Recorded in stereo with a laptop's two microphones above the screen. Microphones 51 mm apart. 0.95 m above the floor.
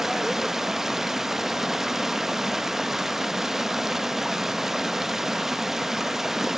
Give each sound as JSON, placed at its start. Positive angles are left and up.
{"t": 0.0, "sound": "running water", "side_deg": -5, "distance_m": 0.7}